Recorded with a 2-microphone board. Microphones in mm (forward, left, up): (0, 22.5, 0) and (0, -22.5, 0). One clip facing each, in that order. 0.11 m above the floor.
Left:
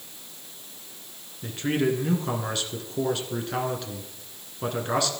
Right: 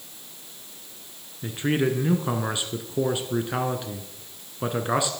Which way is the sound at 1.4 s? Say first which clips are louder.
Right 1 dB; 15° right (ahead or behind).